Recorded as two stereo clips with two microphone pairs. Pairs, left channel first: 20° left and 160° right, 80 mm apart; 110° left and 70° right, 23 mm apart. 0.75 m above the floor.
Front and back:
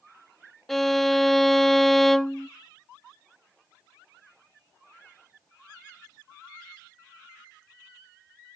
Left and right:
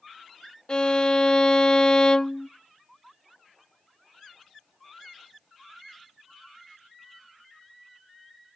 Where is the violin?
100° left, 0.5 m.